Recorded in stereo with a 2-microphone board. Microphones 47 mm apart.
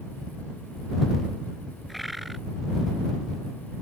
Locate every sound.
1.9 s a bird: 5° right (ahead or behind)